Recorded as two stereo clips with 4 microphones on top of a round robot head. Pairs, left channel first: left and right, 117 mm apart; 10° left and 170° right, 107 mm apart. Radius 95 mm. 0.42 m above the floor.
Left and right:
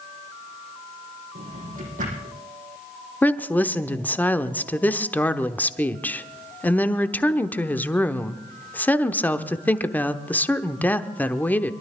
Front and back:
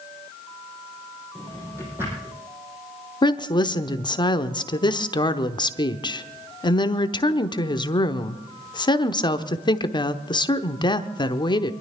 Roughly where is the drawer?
Right.